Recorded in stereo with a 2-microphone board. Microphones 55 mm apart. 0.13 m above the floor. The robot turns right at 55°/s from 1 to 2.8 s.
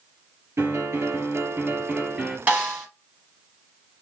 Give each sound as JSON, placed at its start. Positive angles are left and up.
{"t": 0.6, "sound": "a piano", "azimuth_deg": -90, "distance_m": 2.5}
{"t": 2.5, "sound": "a snare drum", "side_deg": -30, "distance_m": 2.5}